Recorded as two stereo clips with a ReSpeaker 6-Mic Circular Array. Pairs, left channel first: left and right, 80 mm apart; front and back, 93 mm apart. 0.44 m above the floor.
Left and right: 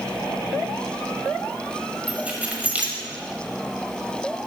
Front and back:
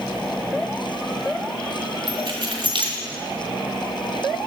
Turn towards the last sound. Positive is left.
turn(degrees=-160)